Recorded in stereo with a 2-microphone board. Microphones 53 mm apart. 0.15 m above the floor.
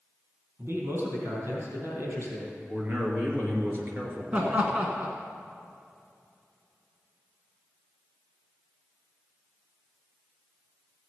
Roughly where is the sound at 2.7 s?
Right.